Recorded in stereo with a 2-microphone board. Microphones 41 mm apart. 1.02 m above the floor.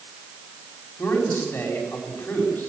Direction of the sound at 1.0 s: 55° left (ahead or behind).